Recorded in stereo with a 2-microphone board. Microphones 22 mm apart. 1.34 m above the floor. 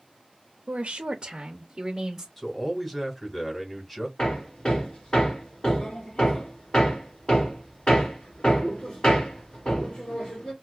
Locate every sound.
0.7 s a woman speaking: 55° right (ahead or behind), 0.5 m; by 2.3 s 15° right (ahead or behind), 1.0 m
2.4 s a man speaking: 10° left (ahead or behind), 2 m
4.2 s hammering: 40° left (ahead or behind), 1.9 m